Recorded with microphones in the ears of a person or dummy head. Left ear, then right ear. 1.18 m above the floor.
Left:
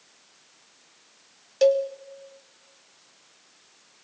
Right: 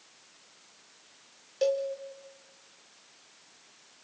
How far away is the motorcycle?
I don't hear a motorcycle.